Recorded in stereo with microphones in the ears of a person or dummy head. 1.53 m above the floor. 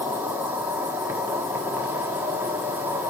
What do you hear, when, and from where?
0.0 s an insect: 15° right (ahead or behind), 1.5 m